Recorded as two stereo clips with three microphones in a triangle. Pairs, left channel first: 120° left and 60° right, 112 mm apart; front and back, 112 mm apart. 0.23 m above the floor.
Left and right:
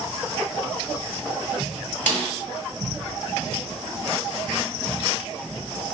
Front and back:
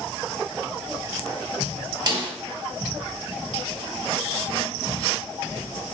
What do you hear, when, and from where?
2.1 s a snare drum: 170° right, 1.9 m